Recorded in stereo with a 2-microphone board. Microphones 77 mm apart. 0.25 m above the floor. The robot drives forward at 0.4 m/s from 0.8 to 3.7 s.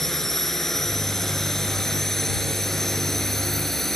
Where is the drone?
5° left (ahead or behind).